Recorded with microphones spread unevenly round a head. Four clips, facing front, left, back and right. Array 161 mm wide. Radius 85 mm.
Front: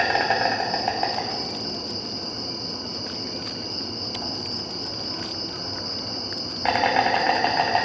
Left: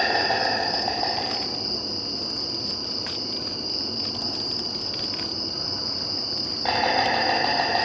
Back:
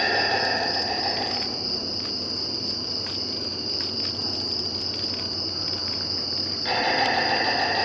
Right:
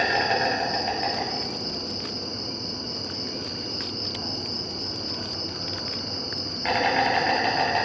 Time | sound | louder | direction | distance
0.0 | an insect | even, front 3 dB | 15° left | 1.2 m